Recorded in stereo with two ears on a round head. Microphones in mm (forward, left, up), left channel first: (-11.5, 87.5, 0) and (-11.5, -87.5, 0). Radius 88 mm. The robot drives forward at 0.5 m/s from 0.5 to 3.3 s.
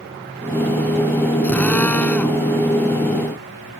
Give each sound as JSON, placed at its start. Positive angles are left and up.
{"t": 1.4, "sound": "a drill", "side_deg": 5}